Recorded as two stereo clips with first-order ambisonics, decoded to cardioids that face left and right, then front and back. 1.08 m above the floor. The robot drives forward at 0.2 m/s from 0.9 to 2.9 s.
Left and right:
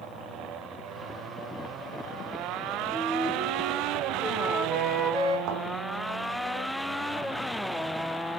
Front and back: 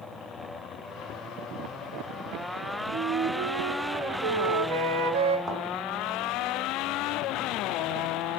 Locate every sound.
2.9 s a flute: 155° right, 2 m
5.5 s a thud: 100° right, 4 m